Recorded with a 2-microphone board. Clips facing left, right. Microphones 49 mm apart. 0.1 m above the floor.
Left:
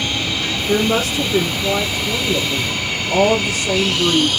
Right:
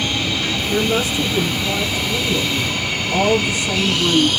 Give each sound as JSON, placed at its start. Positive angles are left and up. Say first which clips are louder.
{"t": 0.7, "sound": "a woman speaking", "louder": "left 3 dB", "side_deg": 75, "distance_m": 4.5}